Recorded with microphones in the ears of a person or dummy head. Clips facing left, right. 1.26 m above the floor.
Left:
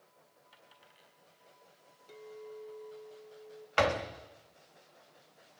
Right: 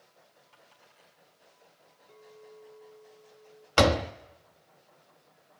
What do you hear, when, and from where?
0.5 s a dropped coin: 15° left (ahead or behind), 5.5 m
2.1 s a clink: 20° left (ahead or behind), 2 m
3.8 s a door slam: 60° right (ahead or behind), 1.2 m